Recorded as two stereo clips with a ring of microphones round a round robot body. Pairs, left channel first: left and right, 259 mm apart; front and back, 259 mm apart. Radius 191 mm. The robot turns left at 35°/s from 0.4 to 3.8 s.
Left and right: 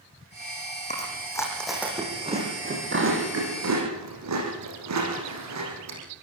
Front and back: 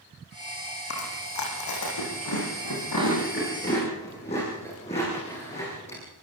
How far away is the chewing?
About 9.5 m.